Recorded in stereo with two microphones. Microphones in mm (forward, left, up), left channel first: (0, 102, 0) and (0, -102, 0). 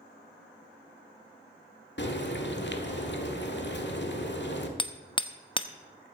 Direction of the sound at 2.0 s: 60° left (ahead or behind).